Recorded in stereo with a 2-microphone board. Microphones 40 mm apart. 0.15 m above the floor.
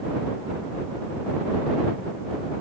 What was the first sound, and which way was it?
Only background noise.